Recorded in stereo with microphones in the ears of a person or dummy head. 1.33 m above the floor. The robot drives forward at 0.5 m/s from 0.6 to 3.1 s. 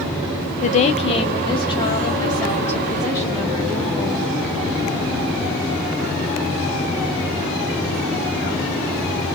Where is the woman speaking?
40° left (ahead or behind), 0.9 m; by 4.4 s 15° left (ahead or behind), 2.0 m.